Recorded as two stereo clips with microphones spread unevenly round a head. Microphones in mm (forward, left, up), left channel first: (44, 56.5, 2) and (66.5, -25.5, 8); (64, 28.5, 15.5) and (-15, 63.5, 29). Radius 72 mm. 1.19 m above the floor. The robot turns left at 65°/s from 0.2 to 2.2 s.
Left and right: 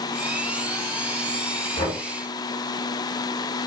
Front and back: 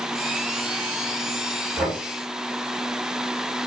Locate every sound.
1.8 s knocking: 80° left, 3 m; by 2.0 s 65° left, 3 m